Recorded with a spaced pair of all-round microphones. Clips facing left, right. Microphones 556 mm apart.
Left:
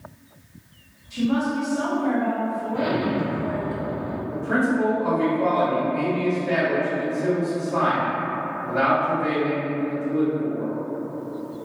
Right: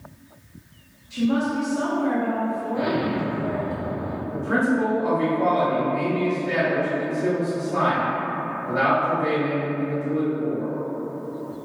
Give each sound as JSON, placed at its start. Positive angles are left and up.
{"t": 1.1, "sound": "a woman speaking", "side_deg": 15, "distance_m": 1.2}
{"t": 2.7, "sound": "an explosion", "side_deg": 55, "distance_m": 0.6}
{"t": 4.3, "sound": "a man speaking", "side_deg": -5, "distance_m": 1.9}